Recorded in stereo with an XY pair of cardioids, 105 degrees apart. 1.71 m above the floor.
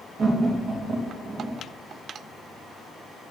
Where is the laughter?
45° right, 3 m.